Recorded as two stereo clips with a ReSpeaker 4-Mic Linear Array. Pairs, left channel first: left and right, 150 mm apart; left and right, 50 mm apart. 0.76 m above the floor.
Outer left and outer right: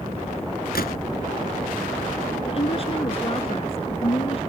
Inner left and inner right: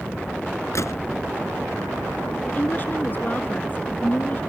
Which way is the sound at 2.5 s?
40° left (ahead or behind).